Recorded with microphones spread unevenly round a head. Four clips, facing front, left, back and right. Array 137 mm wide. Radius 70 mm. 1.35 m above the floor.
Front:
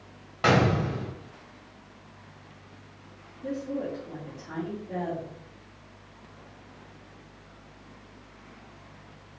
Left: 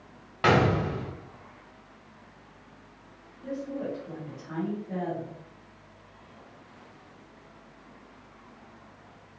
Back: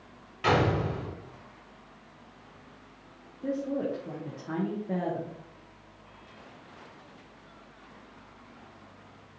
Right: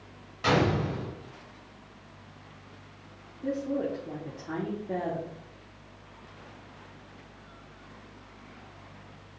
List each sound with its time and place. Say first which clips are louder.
0.4 s a gunshot: left 3 dB, front 2 dB; 45° left, 1.1 m
3.4 s a woman speaking: right 4 dB, back 2 dB; 140° right, 1.2 m